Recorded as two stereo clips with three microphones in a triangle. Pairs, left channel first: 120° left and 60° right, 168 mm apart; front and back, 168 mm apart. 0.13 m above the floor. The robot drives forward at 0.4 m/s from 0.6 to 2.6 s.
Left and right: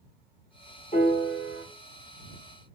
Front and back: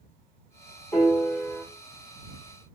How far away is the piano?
About 1.6 m.